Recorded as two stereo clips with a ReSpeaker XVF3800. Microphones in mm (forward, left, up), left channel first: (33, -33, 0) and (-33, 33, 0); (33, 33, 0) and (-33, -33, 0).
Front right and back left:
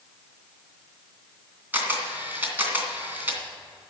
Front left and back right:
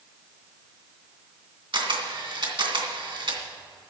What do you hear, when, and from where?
1.7 s a camera shutter: 155° right, 2.5 m